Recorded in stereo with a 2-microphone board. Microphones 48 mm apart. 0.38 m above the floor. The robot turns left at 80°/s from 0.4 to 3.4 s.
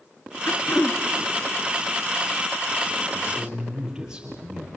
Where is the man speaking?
35° right (ahead or behind), 8.5 m; by 4.7 s 15° right (ahead or behind), 8.5 m.